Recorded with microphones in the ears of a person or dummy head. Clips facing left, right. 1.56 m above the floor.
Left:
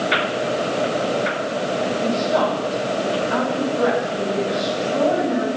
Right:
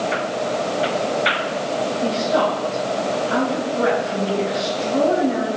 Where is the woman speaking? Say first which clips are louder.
Right 1 dB; 30° right (ahead or behind), 4.5 m.